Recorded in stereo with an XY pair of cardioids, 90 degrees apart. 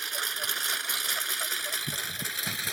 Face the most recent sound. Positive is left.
turn(degrees=0)